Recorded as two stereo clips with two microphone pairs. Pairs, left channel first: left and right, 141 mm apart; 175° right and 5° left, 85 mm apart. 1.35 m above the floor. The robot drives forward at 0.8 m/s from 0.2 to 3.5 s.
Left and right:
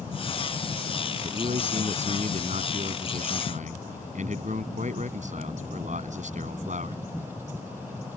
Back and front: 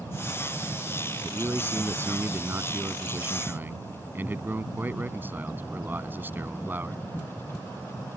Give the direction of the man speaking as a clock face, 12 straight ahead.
2 o'clock.